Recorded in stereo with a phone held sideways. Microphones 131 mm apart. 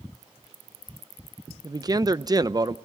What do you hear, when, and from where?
1.6 s a man speaking: 30° right (ahead or behind), 0.6 m